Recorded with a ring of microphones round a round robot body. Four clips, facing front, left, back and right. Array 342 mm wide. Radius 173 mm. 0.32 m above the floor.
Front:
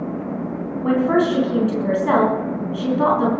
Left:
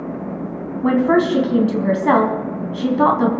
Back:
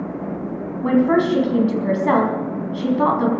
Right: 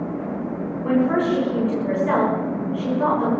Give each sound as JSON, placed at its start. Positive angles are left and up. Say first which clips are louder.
{"t": 0.8, "sound": "a woman speaking", "louder": "left 4 dB, back 1 dB", "azimuth_deg": 95, "distance_m": 3.5}